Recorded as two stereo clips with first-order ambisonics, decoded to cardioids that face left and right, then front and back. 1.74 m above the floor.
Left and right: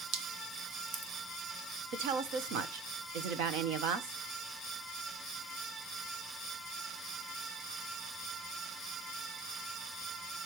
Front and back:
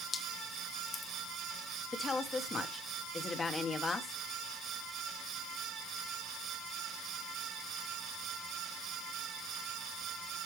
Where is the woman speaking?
75° right, 1.3 m.